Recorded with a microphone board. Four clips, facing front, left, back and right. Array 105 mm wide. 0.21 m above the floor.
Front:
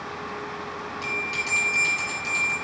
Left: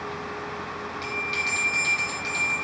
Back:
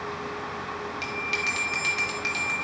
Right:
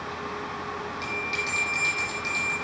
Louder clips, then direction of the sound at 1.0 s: Left 1 dB, even; straight behind.